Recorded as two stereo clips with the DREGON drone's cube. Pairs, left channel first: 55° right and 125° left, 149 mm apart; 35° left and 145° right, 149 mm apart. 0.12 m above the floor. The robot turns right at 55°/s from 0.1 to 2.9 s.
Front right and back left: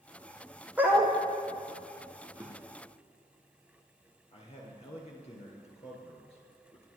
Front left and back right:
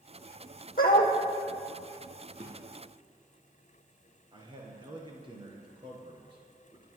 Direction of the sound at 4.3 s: 95° right.